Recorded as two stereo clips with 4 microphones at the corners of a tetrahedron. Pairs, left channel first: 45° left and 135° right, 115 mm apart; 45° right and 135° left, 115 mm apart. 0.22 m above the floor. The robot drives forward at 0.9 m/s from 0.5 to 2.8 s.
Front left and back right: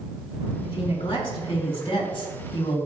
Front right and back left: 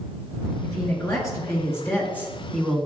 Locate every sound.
0.6 s a woman speaking: 10° left, 3 m; by 2.9 s 40° left, 1.4 m